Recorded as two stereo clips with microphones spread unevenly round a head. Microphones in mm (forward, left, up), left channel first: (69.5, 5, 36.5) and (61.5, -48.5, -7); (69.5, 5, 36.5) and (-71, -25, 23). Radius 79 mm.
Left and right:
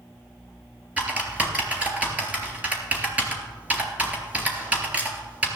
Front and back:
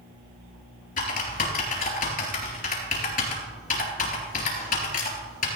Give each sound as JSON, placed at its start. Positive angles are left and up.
{"t": 1.0, "sound": "typing on a keyboard", "azimuth_deg": -20, "distance_m": 3.5}